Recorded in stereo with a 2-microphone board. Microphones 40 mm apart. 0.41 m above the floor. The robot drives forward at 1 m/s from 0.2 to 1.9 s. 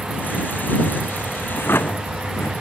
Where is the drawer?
70° left (ahead or behind).